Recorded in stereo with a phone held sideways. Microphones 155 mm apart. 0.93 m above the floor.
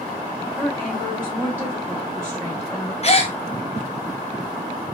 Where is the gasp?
40° left (ahead or behind), 0.6 m.